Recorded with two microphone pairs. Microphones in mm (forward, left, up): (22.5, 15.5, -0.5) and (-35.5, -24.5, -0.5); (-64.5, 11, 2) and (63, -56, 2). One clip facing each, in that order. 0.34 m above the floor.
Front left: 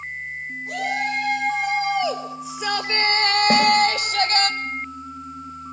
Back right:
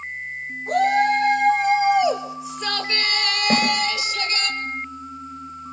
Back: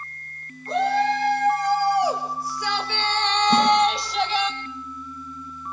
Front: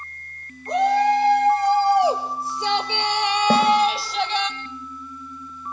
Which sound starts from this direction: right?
A shout, at 0.7 s.